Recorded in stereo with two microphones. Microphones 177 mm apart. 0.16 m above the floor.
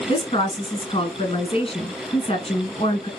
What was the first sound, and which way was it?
A woman speaking, 30° left (ahead or behind).